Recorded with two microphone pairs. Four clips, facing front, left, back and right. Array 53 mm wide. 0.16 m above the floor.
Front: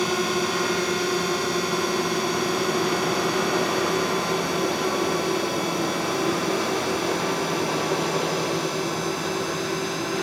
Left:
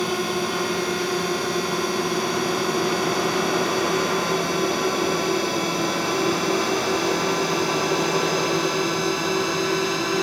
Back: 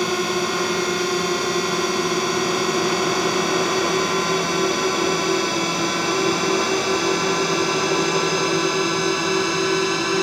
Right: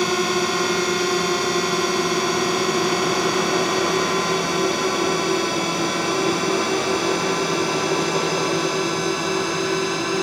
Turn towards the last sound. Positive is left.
turn(degrees=180)